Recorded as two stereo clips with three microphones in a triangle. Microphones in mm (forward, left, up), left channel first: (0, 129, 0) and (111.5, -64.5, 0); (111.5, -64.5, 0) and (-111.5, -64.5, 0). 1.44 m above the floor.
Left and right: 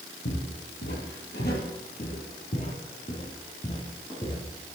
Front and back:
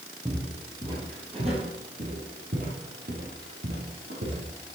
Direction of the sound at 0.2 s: 105° left.